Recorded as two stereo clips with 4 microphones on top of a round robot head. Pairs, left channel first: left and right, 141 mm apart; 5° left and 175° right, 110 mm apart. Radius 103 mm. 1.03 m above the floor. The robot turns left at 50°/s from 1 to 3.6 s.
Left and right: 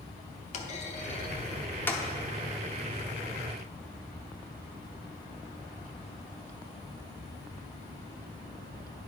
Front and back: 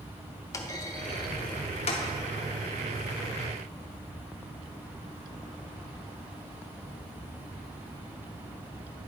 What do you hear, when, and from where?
0.5 s a clunk: 60° left, 0.8 m; by 2.0 s 10° left, 0.8 m